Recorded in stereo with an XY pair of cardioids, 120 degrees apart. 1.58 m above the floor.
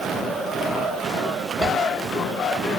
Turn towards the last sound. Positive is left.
turn(degrees=-25)